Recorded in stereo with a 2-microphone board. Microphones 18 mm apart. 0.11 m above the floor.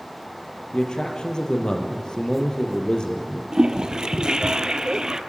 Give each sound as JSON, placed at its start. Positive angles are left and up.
{"t": 0.7, "sound": "a man speaking", "side_deg": 50, "distance_m": 3.0}
{"t": 3.5, "sound": "a toilet flushing", "side_deg": -55, "distance_m": 1.0}